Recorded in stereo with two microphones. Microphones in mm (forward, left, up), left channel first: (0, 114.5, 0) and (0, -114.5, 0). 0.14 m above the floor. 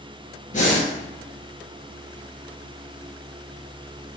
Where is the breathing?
35° left (ahead or behind), 1.9 m.